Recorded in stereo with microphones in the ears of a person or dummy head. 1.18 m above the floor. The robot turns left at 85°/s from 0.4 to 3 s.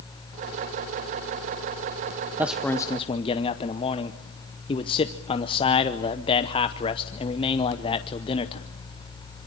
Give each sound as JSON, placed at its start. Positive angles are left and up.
{"t": 2.4, "sound": "a man speaking", "azimuth_deg": -170, "distance_m": 0.8}